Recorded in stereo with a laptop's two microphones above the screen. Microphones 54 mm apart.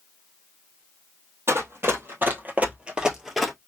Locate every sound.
1.5 s running footsteps: 50° right (ahead or behind), 1.5 m; by 3.5 s 5° left (ahead or behind), 1.0 m